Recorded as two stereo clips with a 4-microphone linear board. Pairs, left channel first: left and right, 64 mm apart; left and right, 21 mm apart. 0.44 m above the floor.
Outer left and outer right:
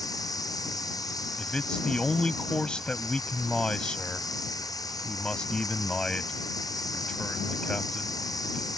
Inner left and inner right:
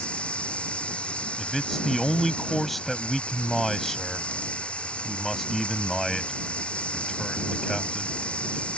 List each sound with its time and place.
0.0 s running water: 65° left (ahead or behind)
1.4 s a man speaking: 15° left (ahead or behind)